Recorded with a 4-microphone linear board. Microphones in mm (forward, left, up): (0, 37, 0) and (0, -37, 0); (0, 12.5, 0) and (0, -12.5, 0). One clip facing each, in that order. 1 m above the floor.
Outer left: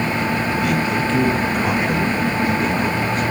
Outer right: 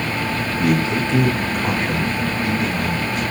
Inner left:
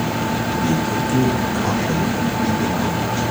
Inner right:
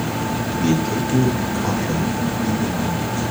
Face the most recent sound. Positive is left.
turn(degrees=45)  # may be behind; listen again after turning